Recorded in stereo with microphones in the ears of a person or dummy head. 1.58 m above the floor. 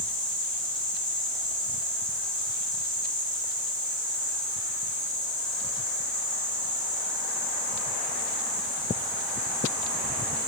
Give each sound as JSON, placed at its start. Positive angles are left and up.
{"t": 0.0, "sound": "an insect", "side_deg": 25, "distance_m": 1.3}